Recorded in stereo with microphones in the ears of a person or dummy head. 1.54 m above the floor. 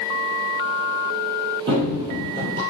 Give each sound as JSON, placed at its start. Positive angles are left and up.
{"t": 1.7, "sound": "running footsteps", "side_deg": -25, "distance_m": 2.5}